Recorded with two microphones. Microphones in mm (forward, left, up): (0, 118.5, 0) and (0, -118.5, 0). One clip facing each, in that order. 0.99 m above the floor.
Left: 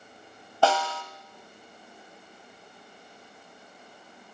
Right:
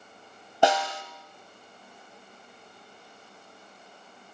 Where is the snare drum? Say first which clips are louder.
Right 1 dB; 20° right (ahead or behind), 1.5 m.